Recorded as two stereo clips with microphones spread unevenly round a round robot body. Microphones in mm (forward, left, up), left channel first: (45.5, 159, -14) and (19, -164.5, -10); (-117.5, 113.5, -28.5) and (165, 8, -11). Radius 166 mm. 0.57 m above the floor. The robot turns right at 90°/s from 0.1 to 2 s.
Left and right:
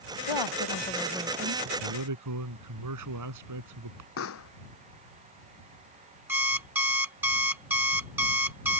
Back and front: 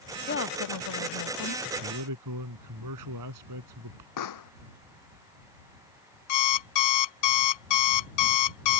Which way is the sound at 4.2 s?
140° left.